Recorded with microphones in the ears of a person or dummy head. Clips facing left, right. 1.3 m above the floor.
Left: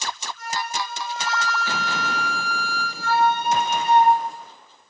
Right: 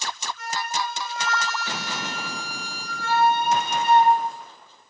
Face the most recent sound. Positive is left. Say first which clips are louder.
# even
turn(degrees=-65)  # may be behind; listen again after turning